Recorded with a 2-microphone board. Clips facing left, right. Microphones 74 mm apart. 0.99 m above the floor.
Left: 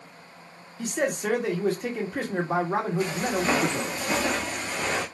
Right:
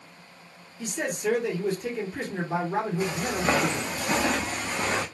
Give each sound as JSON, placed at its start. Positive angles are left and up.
{"t": 0.8, "sound": "a man speaking", "side_deg": 65, "distance_m": 1.3}
{"t": 3.0, "sound": "footsteps", "side_deg": -10, "distance_m": 1.9}